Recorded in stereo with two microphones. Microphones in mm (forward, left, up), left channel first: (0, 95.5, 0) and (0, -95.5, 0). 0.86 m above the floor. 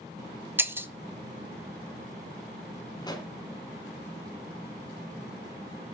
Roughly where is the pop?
Left.